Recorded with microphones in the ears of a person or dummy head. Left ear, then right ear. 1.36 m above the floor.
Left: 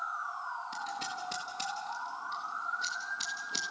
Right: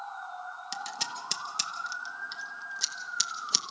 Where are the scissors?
75° right (ahead or behind), 1.6 m.